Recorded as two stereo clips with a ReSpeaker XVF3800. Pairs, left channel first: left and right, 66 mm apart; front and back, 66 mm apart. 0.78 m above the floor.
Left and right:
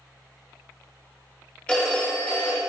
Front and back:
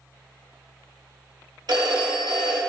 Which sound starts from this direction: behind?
A phone ringing, at 1.7 s.